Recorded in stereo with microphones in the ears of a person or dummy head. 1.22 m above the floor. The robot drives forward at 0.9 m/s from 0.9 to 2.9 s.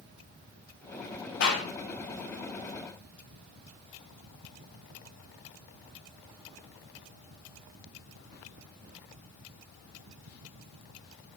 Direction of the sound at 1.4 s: 55° left (ahead or behind).